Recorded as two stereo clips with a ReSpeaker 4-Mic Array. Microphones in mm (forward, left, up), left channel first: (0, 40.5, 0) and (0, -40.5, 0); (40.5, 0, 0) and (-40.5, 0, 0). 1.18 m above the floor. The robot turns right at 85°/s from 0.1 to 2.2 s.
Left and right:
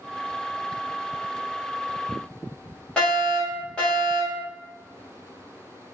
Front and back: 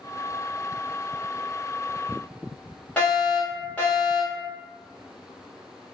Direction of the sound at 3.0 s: 35° left.